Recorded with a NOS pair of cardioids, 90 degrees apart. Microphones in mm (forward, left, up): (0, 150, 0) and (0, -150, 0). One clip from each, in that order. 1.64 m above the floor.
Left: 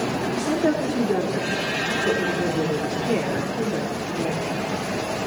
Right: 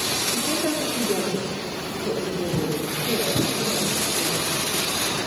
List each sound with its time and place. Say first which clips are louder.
0.3 s a woman speaking: left 2 dB; 30° left, 5.5 m